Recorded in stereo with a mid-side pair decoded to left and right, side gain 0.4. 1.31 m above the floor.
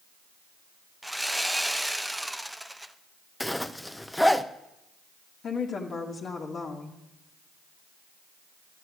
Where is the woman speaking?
50° left, 1.8 m.